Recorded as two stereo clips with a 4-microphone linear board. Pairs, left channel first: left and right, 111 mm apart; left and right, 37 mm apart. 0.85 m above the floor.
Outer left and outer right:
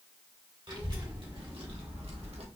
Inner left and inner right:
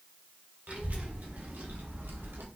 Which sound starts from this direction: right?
A child speaking, at 0.7 s.